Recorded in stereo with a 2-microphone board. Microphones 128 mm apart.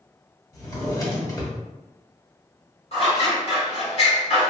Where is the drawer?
25° left (ahead or behind), 1.0 m.